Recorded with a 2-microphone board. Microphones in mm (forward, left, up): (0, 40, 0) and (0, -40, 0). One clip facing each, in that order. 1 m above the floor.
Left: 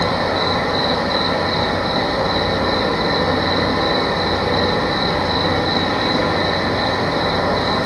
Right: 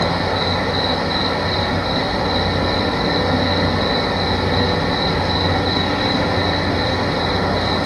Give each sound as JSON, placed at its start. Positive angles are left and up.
{"t": 0.0, "sound": "an insect", "side_deg": 25, "distance_m": 0.8}